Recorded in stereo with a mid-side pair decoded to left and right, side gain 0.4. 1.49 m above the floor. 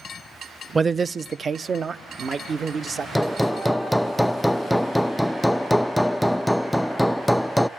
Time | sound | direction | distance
0.8 | a man speaking | 25° right | 0.5 m
3.1 | hammering | 10° left | 0.5 m